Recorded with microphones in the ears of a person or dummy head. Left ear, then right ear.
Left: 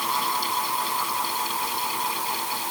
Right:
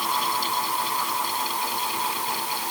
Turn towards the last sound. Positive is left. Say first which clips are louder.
# right 1 dB
turn(degrees=-5)  # may be behind; listen again after turning